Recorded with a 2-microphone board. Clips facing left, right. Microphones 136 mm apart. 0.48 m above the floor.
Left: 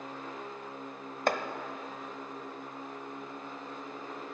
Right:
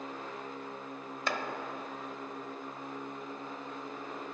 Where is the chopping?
50° left (ahead or behind), 0.7 m.